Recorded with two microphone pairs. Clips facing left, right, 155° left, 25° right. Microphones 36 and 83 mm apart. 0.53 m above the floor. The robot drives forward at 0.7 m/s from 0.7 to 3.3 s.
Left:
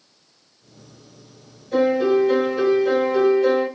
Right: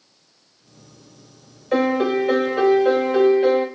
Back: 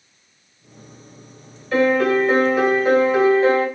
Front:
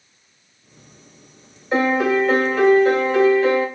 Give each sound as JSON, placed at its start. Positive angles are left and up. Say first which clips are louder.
{"t": 1.7, "sound": "a piano", "louder": "left 1 dB, back 1 dB", "azimuth_deg": -90, "distance_m": 1.0}